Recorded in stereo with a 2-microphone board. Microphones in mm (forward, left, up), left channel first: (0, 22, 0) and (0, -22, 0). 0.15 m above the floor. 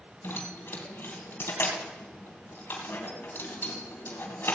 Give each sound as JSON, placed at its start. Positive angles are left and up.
{"t": 0.2, "sound": "keys jangling", "side_deg": 60, "distance_m": 2.5}